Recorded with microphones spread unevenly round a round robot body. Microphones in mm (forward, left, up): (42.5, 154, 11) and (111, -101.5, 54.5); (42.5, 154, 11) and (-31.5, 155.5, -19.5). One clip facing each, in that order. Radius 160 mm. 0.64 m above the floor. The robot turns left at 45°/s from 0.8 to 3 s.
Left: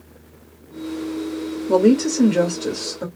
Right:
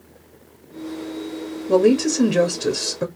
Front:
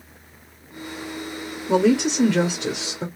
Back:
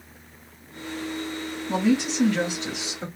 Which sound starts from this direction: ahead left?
A woman speaking, at 1.7 s.